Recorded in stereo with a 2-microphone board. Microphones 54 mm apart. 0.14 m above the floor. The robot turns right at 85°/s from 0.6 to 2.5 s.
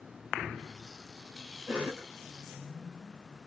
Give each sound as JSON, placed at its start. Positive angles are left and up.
{"t": 1.7, "sound": "a cough", "side_deg": -15, "distance_m": 1.4}